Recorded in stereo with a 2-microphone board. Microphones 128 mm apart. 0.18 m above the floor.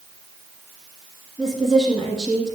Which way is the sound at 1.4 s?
5° left (ahead or behind).